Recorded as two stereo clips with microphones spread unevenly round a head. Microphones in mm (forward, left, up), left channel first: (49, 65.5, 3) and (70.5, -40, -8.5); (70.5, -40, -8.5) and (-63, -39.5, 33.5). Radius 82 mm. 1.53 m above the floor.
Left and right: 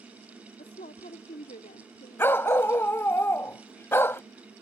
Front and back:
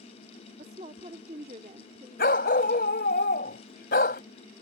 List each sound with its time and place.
0.6 s a woman speaking: 135° left; by 3.2 s 125° left
2.2 s a dog barking: 40° left